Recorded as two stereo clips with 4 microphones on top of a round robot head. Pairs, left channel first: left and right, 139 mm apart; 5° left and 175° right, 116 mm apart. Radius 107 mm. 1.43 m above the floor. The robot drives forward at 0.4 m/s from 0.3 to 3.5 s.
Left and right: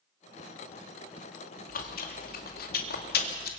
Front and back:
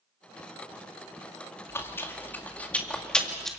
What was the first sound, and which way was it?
Chewing, 75° left.